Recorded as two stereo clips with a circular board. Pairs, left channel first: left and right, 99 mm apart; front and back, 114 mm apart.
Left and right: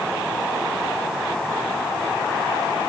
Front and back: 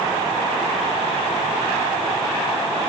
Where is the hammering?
No hammering in this recording.